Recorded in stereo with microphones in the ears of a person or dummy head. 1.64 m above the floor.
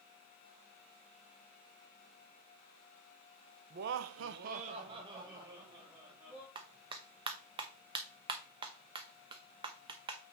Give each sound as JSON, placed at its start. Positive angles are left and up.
{"t": 3.7, "sound": "laughter", "side_deg": -45, "distance_m": 0.8}
{"t": 6.5, "sound": "a clap", "side_deg": -30, "distance_m": 1.1}